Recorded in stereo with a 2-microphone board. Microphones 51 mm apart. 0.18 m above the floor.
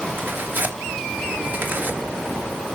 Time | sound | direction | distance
0.2 | tearing paper | 45° right (ahead or behind) | 3 m